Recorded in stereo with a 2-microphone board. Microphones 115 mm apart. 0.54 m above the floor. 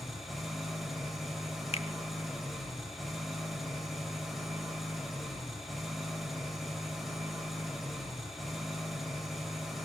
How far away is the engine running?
About 2.5 m.